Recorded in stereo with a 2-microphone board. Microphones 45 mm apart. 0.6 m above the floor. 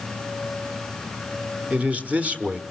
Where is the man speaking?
30° right (ahead or behind), 1.2 m.